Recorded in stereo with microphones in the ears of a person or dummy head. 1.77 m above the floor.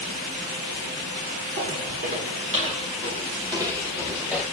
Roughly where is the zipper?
No zipper in this recording.